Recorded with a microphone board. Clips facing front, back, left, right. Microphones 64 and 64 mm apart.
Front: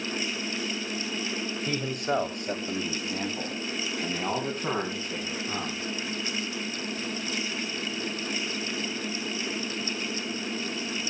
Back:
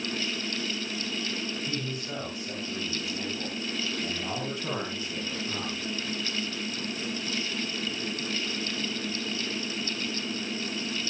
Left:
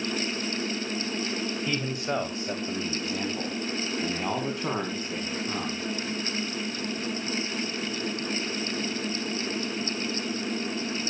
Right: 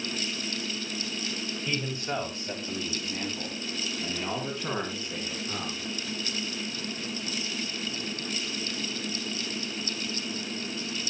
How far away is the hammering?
No hammering in this recording.